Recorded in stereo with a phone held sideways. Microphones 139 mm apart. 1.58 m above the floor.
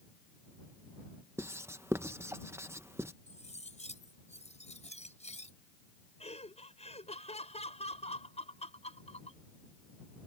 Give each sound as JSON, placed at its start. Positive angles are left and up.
{"t": 1.4, "sound": "writing", "side_deg": -20}
{"t": 3.3, "sound": "cutlery clinking", "side_deg": 55}
{"t": 6.2, "sound": "laughter", "side_deg": 50}